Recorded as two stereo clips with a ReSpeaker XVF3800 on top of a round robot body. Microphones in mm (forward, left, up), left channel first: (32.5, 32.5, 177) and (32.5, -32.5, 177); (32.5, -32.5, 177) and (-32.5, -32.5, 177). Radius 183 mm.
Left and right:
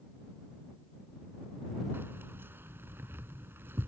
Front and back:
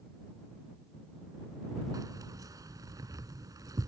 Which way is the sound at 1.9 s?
150° right.